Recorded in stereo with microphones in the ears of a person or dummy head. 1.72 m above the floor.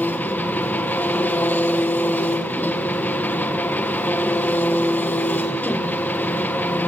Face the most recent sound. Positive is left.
turn(degrees=10)  # may be behind; listen again after turning